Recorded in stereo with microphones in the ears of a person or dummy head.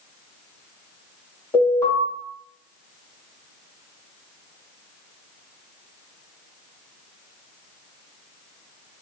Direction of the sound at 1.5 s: 20° left (ahead or behind).